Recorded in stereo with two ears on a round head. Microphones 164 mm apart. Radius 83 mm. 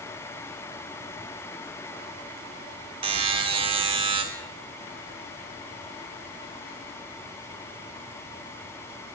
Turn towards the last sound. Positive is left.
turn(degrees=-30)  # may be behind; listen again after turning